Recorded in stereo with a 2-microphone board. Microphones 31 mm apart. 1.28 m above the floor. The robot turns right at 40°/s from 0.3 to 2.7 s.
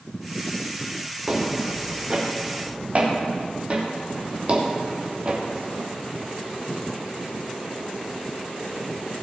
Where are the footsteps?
5° left (ahead or behind), 4.5 m; by 5.4 s 30° right (ahead or behind), 2.5 m.